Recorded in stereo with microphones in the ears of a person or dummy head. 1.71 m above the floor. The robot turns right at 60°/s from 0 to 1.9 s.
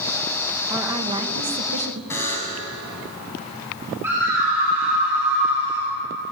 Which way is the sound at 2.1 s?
15° left (ahead or behind).